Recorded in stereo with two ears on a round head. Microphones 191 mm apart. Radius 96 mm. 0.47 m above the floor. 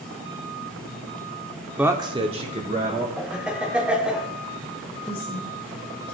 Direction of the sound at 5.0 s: 10° left (ahead or behind).